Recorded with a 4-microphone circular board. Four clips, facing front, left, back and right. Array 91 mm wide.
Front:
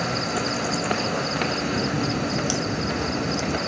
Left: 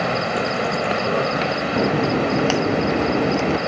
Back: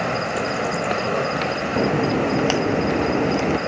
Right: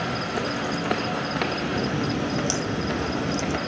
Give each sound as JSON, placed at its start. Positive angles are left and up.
{"t": 0.0, "sound": "an insect", "azimuth_deg": 125}
{"t": 1.8, "sound": "a crack", "azimuth_deg": 135}